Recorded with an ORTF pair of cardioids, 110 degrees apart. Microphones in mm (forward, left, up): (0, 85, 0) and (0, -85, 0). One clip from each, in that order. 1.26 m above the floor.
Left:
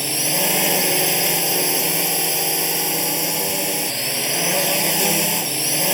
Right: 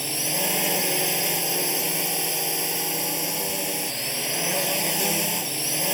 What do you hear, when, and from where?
0.0 s a drone: 35° left